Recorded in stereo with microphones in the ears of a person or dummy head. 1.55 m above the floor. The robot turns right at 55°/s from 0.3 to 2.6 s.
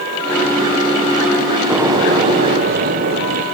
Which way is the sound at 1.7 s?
175° right.